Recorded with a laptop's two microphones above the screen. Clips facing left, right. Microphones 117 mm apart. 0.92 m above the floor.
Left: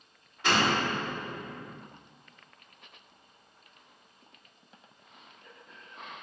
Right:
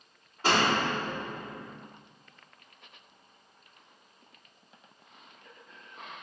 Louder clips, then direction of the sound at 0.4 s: Right 1 dB; 40° right (ahead or behind).